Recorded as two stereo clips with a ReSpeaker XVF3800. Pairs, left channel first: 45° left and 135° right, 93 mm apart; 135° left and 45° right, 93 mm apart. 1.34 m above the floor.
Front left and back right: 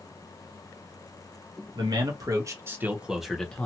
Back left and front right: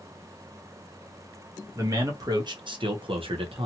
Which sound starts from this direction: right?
A man speaking, at 1.8 s.